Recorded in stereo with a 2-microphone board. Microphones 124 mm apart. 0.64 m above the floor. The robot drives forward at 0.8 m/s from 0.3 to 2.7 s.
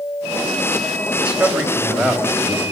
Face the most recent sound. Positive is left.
turn(degrees=-5)  # may be behind; listen again after turning